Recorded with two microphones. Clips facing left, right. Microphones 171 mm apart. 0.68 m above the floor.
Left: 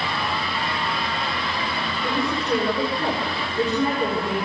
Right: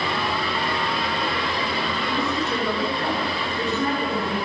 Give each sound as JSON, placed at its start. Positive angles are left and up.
{"t": 2.0, "sound": "a woman speaking", "side_deg": 25, "distance_m": 9.5}